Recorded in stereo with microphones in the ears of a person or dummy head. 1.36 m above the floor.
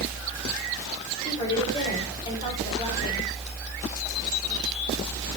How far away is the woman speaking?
About 6 m.